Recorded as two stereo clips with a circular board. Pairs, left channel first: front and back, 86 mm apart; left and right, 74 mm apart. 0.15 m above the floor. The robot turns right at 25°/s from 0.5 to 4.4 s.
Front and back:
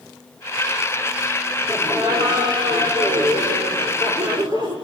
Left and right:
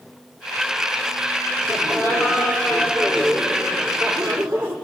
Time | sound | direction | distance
1.7 | laughter | 135° left | 7.5 m